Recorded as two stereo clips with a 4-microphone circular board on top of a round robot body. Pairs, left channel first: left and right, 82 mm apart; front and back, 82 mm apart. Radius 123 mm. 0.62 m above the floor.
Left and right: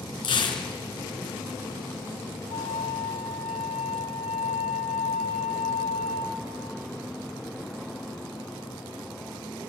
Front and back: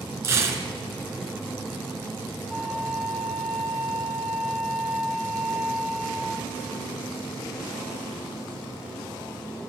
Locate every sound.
0.2 s tearing paper: 120° left, 2 m
2.5 s a flute: 95° left, 3 m